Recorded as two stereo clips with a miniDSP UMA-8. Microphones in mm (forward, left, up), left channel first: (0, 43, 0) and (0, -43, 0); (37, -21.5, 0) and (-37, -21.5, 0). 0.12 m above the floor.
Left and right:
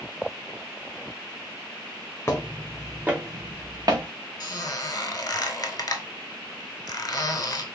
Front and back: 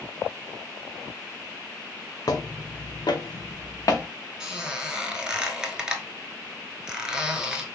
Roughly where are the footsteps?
Ahead left.